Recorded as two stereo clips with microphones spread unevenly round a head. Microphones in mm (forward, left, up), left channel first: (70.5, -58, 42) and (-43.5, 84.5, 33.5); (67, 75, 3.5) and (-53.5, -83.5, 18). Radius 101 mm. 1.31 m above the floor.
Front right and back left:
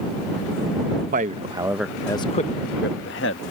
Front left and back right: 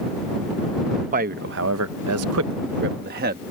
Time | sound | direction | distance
1.1 | a man speaking | straight behind | ?